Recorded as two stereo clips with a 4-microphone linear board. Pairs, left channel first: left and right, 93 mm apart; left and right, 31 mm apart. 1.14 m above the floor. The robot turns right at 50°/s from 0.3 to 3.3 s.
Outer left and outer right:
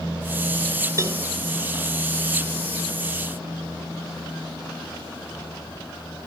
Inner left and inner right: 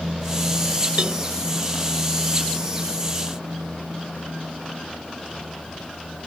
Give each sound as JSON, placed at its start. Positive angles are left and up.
{"t": 1.0, "sound": "a cowbell", "side_deg": -35}